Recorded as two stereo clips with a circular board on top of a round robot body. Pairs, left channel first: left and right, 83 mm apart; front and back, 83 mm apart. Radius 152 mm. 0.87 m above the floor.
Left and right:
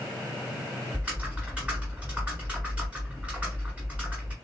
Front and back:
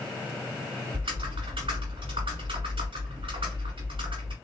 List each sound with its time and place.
0.9 s typing on a keyboard: 165° right, 0.9 m